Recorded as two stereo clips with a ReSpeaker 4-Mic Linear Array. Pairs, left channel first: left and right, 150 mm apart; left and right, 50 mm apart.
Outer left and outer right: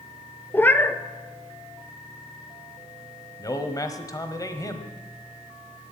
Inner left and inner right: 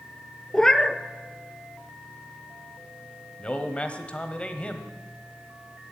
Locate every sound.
0.5 s a cat meowing: 15° left (ahead or behind), 0.6 m
3.4 s a man speaking: 25° left (ahead or behind), 1.2 m